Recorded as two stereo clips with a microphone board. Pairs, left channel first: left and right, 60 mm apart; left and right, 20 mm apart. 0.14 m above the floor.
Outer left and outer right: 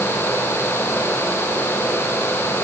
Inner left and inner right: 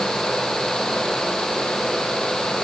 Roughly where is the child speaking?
No child speaking in this recording.